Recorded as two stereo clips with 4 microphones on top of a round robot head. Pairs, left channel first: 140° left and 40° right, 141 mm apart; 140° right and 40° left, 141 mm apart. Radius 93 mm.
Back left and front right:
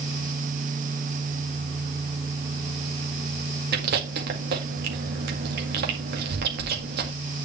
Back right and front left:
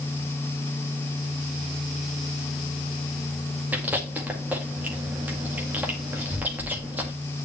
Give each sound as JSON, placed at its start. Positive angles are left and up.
{"t": 3.7, "sound": "chewing", "azimuth_deg": -40, "distance_m": 1.9}